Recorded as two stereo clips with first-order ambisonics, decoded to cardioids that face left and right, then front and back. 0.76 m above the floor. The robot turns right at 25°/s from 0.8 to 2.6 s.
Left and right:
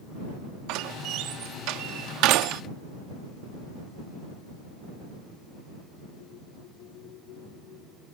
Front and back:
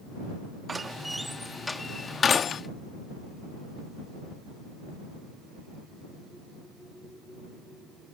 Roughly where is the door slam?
Right.